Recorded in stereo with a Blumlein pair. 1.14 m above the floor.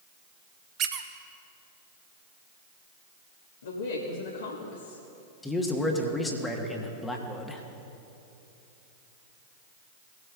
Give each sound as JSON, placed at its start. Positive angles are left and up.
{"t": 0.8, "sound": "a squeak", "azimuth_deg": -35, "distance_m": 0.7}
{"t": 3.6, "sound": "a woman speaking", "azimuth_deg": 65, "distance_m": 1.6}
{"t": 5.4, "sound": "a man speaking", "azimuth_deg": 10, "distance_m": 1.3}